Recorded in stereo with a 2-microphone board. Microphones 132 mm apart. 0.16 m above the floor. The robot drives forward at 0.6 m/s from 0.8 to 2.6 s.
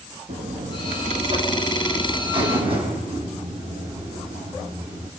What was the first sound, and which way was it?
A buzzer, 60° right (ahead or behind).